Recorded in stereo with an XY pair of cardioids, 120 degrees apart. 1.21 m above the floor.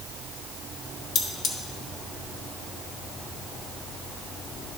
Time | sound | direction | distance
1.1 | cutlery clinking | 65° left | 1.2 m